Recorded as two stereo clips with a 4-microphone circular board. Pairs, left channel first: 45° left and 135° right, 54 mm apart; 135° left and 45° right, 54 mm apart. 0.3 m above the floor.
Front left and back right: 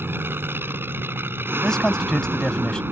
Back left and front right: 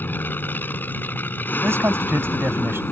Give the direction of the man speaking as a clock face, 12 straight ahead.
1 o'clock.